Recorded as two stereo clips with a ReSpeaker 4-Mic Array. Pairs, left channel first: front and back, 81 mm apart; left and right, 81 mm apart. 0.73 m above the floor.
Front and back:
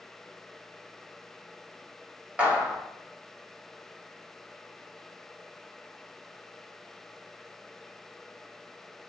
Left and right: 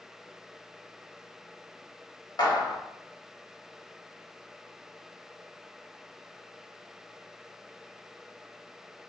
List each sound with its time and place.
2.4 s a clap: 105° left, 1.3 m